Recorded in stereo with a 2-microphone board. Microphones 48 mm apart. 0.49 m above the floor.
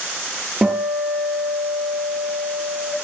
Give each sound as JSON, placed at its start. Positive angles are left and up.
{"t": 0.6, "sound": "a guitar", "side_deg": -15, "distance_m": 5.5}